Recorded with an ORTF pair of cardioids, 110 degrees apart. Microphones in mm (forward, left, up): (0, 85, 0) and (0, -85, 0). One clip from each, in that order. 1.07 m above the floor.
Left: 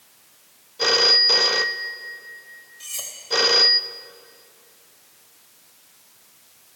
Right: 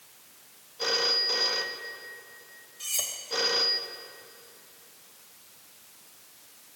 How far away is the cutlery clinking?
About 3 m.